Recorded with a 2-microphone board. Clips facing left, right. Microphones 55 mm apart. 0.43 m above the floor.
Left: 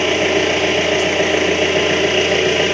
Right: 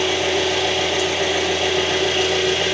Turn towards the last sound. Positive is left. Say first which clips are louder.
# left 4 dB
turn(degrees=50)  # may be behind; listen again after turning